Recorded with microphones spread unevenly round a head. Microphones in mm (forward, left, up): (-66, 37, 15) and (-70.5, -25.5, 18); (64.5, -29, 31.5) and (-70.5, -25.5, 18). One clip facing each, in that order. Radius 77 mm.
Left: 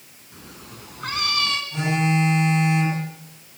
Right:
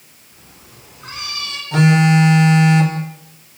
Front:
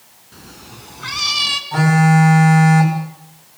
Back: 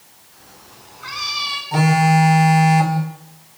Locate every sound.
0.3 s a cat meowing: 30° left, 3 m
1.7 s a phone buzzing: 110° right, 6.5 m